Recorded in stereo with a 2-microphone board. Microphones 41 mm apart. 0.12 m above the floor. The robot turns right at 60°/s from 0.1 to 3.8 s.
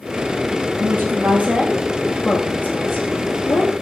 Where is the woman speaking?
70° right, 9 m; by 3.7 s 110° left, 9 m.